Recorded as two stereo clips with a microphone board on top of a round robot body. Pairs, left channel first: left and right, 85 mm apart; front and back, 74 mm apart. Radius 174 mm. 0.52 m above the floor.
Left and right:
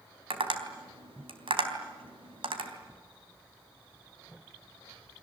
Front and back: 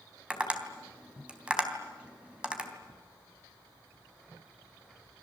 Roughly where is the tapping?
Right.